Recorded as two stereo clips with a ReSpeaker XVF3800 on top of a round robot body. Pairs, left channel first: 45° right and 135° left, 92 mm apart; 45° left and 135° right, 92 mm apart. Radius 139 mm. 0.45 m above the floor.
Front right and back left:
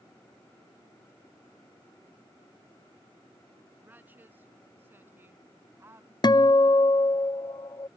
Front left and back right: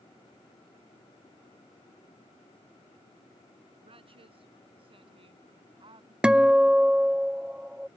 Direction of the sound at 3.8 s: 155° right.